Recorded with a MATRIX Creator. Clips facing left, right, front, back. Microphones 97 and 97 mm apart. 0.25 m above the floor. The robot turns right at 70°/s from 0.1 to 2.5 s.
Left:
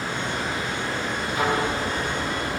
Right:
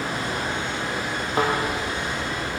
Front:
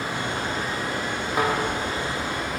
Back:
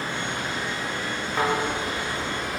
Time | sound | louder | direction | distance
0.0 | running water | right 1 dB, front 2 dB | 75° right | 5 m
1.3 | a thud | right 2 dB, front 1 dB | 80° right | 5.5 m